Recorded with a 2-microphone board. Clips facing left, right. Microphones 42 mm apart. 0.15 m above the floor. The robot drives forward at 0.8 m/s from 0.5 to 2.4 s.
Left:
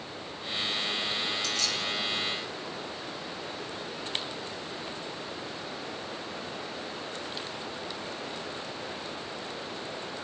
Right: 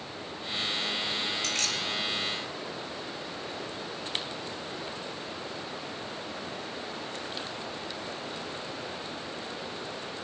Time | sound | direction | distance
1.4 | keys jangling | 55° right (ahead or behind) | 2 m